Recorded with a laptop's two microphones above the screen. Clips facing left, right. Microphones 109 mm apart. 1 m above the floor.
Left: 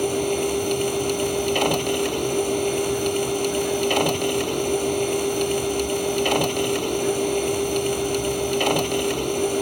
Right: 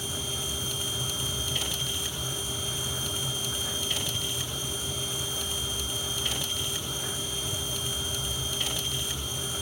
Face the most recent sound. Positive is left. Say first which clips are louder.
# left 17 dB
turn(degrees=65)  # may be behind; listen again after turning